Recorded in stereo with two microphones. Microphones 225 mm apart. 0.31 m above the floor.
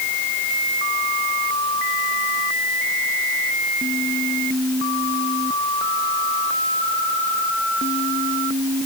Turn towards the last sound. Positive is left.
No sound to turn to.